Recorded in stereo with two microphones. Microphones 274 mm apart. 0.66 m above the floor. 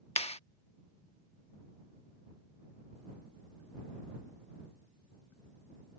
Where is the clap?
25° left (ahead or behind).